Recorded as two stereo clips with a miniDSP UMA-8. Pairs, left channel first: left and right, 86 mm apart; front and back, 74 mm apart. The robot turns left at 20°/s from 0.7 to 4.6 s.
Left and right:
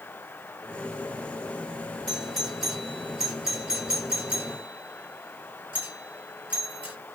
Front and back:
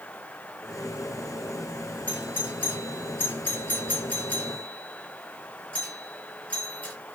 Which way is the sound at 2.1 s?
10° left.